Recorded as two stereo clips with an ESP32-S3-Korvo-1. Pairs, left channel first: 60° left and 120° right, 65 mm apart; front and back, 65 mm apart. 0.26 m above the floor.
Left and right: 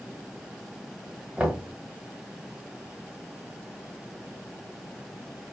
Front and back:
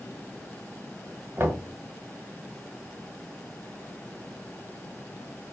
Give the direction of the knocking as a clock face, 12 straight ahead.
6 o'clock.